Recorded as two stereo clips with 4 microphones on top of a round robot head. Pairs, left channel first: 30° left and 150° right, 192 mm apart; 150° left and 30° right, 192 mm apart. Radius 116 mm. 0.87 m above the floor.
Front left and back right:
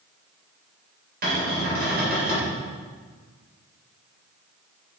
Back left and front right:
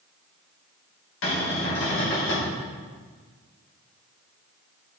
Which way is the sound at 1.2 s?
165° left.